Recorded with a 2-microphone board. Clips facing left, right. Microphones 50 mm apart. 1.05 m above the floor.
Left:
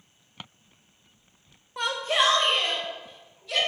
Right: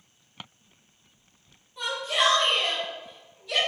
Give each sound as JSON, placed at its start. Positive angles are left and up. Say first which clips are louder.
{"t": 1.8, "sound": "a shout", "louder": "left 2 dB", "side_deg": 65, "distance_m": 0.5}